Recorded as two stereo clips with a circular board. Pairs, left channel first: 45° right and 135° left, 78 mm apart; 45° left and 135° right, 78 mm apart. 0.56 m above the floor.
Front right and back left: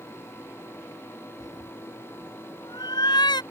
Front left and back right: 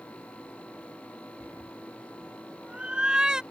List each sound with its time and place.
1.4 s a cat meowing: 70° right; by 3.4 s 55° right